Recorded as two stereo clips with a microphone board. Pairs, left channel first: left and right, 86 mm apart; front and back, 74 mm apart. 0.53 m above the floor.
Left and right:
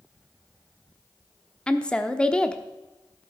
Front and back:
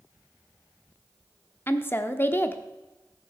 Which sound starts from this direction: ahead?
A woman speaking, at 1.7 s.